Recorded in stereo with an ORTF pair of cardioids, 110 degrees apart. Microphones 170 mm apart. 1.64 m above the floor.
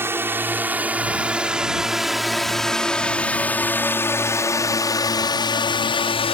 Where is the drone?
15° right; by 6.3 s 35° left.